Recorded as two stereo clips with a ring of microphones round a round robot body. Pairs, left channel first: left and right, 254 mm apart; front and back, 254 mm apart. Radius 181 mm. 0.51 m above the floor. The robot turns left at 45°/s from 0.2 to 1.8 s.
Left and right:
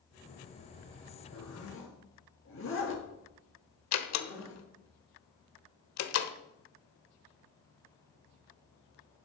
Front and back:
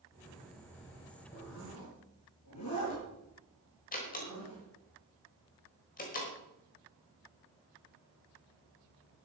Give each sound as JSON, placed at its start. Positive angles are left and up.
{"t": 1.3, "sound": "a zipper", "azimuth_deg": 70, "distance_m": 4.0}
{"t": 3.9, "sound": "a door slam", "azimuth_deg": 65, "distance_m": 1.2}